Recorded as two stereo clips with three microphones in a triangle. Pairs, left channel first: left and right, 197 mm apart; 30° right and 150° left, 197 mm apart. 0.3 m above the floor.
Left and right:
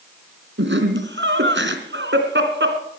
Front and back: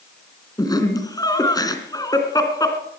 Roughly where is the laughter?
Right.